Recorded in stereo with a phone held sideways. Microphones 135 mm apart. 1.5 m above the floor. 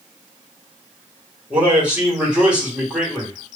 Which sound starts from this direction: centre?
A man speaking, at 1.5 s.